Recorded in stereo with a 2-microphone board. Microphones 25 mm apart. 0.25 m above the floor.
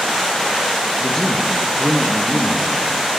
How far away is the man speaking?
About 4 m.